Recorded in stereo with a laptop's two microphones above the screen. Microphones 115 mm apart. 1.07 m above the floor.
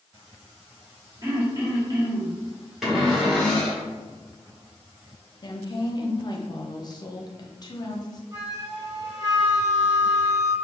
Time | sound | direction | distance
1.2 | throat clearing | 35° right (ahead or behind) | 1.1 m
2.8 | a cupboard door | centre (ahead or behind) | 1.6 m
5.4 | a woman speaking | 40° left (ahead or behind) | 0.8 m
8.3 | a flute | 40° right (ahead or behind) | 1.1 m